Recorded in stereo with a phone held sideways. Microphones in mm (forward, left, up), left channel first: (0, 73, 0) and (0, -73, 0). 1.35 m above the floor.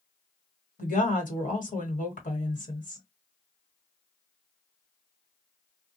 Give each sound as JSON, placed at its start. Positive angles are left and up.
{"t": 0.8, "sound": "a woman speaking", "side_deg": 65, "distance_m": 1.4}